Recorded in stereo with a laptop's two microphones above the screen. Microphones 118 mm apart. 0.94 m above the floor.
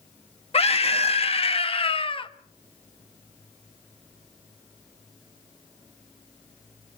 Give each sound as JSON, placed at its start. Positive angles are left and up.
{"t": 0.5, "sound": "a scream", "side_deg": 55, "distance_m": 2.0}